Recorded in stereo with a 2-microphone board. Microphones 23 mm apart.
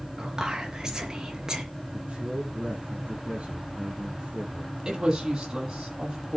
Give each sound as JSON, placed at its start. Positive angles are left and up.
{"t": 0.2, "sound": "whispering", "side_deg": -25, "distance_m": 4.5}
{"t": 1.9, "sound": "a man speaking", "side_deg": -65, "distance_m": 7.0}
{"t": 4.8, "sound": "a woman speaking", "side_deg": -30, "distance_m": 9.0}